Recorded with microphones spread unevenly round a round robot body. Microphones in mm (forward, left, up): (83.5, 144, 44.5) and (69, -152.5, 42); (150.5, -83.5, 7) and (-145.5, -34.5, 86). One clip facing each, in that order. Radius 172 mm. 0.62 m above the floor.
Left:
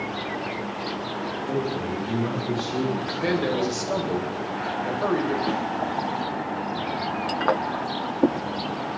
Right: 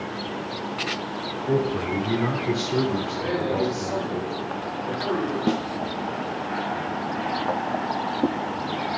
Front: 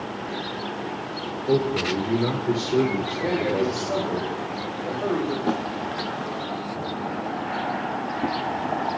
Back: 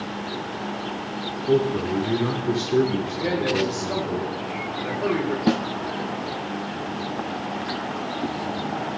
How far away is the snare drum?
About 0.9 m.